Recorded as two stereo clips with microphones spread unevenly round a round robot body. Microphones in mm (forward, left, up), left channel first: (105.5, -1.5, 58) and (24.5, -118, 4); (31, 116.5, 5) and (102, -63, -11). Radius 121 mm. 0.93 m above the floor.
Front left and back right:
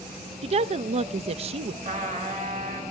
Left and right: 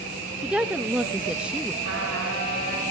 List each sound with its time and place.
0.4 s a woman speaking: 150° right, 0.6 m
1.8 s a trumpet: 90° right, 6.5 m